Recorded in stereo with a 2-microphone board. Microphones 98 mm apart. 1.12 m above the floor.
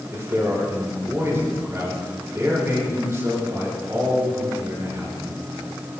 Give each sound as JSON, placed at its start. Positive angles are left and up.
{"t": 0.1, "sound": "a man speaking", "side_deg": -30, "distance_m": 7.5}